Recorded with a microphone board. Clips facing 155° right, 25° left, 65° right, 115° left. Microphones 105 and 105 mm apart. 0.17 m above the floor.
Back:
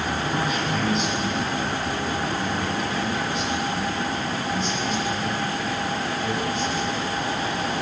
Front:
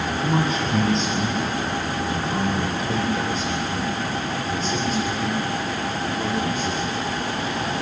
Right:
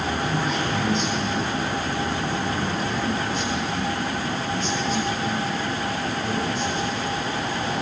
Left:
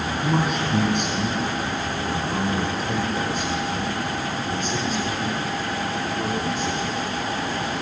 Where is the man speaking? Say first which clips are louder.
Front 5 dB, left 2 dB; 80° left, 6.5 m; by 6.9 s 60° left, 9 m.